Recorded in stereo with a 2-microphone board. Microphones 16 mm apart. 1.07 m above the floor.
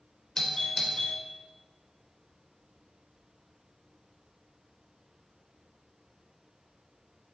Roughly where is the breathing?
I don't hear breathing.